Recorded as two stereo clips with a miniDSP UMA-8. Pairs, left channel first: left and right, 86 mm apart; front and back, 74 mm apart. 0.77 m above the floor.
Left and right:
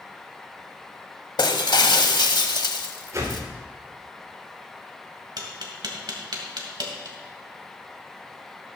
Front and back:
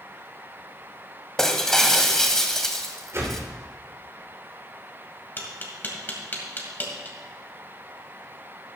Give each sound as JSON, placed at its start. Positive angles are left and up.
{"t": 1.4, "sound": "breaking glass", "azimuth_deg": 85, "distance_m": 1.0}
{"t": 3.1, "sound": "a whoosh", "azimuth_deg": -135, "distance_m": 3.5}
{"t": 5.4, "sound": "tapping", "azimuth_deg": -60, "distance_m": 2.0}